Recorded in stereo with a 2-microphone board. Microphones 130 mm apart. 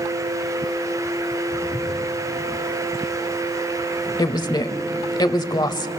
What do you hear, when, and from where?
1.5 s footsteps: 80° right, 8 m
4.2 s a woman speaking: 35° left (ahead or behind), 1.0 m